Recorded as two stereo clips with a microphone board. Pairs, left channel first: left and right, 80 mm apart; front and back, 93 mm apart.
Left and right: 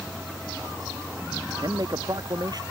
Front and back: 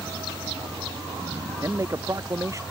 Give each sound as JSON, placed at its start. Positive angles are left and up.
{"t": 0.0, "sound": "a vehicle", "azimuth_deg": -160}
{"t": 1.6, "sound": "a man speaking", "azimuth_deg": -125}